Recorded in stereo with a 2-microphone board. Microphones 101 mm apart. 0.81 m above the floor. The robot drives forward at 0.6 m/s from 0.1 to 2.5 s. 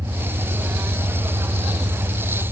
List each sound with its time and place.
0.0 s an engine running: 35° right (ahead or behind), 1.0 m; by 2.5 s 30° right (ahead or behind), 1.0 m